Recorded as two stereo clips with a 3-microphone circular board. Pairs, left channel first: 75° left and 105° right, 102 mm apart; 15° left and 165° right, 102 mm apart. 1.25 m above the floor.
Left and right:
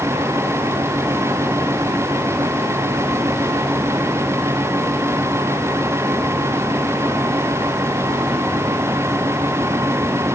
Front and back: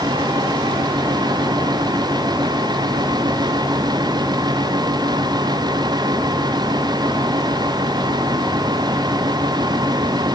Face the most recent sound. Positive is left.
No sound to turn to.